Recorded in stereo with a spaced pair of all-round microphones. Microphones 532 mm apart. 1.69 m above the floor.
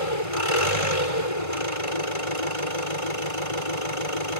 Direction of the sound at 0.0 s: 80° left.